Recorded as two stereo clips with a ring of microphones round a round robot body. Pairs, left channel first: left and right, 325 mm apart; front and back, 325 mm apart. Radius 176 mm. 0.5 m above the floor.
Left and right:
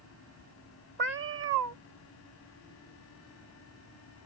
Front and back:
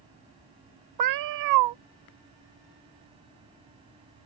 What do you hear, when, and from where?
1.0 s a cat meowing: 150° right